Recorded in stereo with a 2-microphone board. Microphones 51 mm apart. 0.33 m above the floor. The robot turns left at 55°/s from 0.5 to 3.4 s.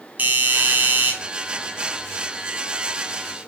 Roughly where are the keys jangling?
I don't hear keys jangling.